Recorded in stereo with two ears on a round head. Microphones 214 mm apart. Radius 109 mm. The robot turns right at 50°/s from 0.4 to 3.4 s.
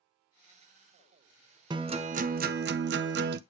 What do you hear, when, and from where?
1.7 s a guitar: 155° right, 0.6 m; by 3.4 s 70° right, 0.6 m